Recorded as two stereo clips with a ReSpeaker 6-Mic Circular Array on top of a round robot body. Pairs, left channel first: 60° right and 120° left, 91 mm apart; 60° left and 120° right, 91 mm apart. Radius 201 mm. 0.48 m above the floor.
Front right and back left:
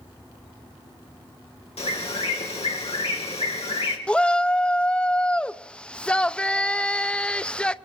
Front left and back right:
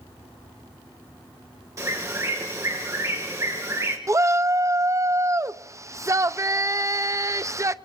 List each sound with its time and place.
1.8 s a bird: 60° right, 3 m
4.1 s a shout: 130° right, 0.8 m